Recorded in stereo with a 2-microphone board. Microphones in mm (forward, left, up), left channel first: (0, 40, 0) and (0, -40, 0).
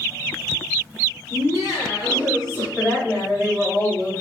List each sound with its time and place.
1.3 s laughter: 40° left (ahead or behind), 1.5 m; by 2.7 s 60° left (ahead or behind), 1.4 m
2.8 s a woman speaking: 15° left (ahead or behind), 1.3 m